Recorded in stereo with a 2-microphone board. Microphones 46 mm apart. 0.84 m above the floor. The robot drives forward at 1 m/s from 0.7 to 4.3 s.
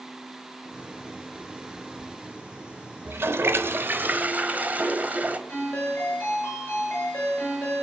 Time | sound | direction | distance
3.0 | a toilet flushing | 50° right (ahead or behind) | 0.9 m
5.5 | a ringtone | 40° left (ahead or behind) | 9 m